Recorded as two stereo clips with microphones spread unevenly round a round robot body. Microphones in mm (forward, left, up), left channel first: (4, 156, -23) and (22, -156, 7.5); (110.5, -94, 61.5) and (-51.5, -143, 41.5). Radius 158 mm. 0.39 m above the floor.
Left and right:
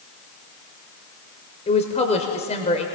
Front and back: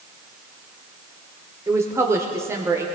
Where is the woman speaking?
140° left, 1.0 m.